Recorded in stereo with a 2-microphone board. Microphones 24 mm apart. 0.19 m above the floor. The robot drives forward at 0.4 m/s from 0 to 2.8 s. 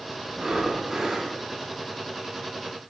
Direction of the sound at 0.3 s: 20° right (ahead or behind).